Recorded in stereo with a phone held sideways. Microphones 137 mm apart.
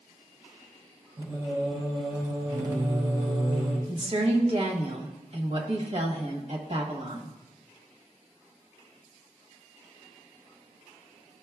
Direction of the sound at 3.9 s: 50° right (ahead or behind).